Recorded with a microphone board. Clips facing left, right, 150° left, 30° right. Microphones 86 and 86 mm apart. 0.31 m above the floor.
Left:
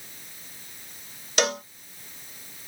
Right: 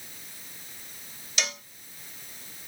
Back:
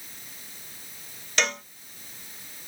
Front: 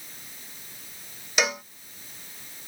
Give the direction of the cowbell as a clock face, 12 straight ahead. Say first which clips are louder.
Left 10 dB, front 1 dB; 10 o'clock.